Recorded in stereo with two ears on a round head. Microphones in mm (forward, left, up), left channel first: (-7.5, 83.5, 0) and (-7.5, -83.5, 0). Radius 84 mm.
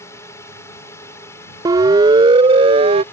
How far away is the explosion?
No explosion in this recording.